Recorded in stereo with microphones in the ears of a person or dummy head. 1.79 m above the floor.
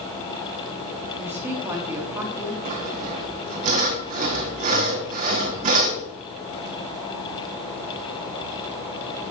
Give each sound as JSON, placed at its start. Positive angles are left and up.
{"t": 1.1, "sound": "a woman speaking", "side_deg": -10, "distance_m": 3.5}
{"t": 2.6, "sound": "sawing", "side_deg": -40, "distance_m": 1.7}